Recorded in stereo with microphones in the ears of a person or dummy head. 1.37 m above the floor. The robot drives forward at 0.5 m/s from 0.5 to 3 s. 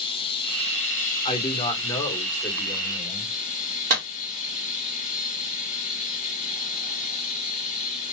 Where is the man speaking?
35° left (ahead or behind), 0.9 m; by 3.3 s 15° left (ahead or behind), 1.6 m.